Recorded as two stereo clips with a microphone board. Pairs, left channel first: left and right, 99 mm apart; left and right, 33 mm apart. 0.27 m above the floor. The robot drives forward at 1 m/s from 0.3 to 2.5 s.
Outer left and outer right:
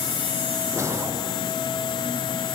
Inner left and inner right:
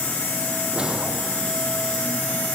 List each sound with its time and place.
0.7 s a whoosh: 30° right (ahead or behind)